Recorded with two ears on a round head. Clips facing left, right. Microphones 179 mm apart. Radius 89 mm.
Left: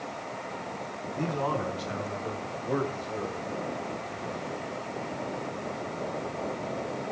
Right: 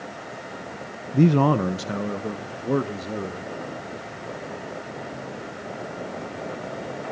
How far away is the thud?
No thud in this recording.